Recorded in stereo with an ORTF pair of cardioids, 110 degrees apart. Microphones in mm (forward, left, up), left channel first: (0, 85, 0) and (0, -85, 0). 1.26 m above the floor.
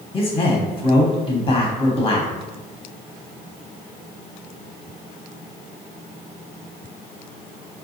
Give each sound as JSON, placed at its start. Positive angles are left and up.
{"t": 0.1, "sound": "a man speaking", "azimuth_deg": 30, "distance_m": 0.8}